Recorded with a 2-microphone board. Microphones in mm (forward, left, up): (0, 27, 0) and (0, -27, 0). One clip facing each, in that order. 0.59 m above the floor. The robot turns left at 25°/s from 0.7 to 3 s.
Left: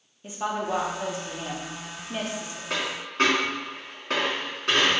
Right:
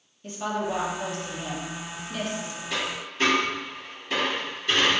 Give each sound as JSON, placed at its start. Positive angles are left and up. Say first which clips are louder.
{"t": 0.2, "sound": "a woman speaking", "louder": "even", "side_deg": 10, "distance_m": 0.7}
{"t": 2.7, "sound": "a dropped coin", "louder": "left 1 dB", "side_deg": 55, "distance_m": 2.0}